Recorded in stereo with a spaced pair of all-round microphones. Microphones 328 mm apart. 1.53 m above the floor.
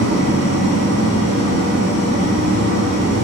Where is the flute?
I don't hear a flute.